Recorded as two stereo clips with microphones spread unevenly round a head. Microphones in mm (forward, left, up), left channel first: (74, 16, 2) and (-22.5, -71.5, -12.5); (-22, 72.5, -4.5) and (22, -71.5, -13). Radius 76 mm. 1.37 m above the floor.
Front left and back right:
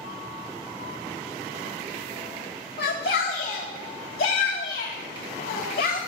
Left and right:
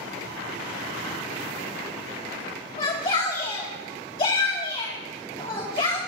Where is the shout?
50° left, 2.5 m.